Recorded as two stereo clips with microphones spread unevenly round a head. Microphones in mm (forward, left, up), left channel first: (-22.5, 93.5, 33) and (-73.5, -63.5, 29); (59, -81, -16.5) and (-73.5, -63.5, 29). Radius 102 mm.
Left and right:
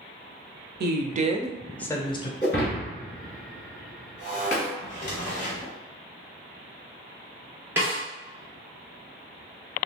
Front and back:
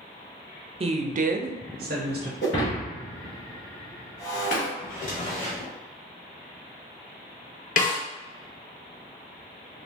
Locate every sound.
0.8 s a woman speaking: 140° right, 0.7 m; by 2.3 s 130° left, 0.8 m
2.4 s breaking glass: 35° left, 1.2 m
4.8 s a drawer: 55° left, 0.9 m
7.8 s a snare drum: 30° right, 0.8 m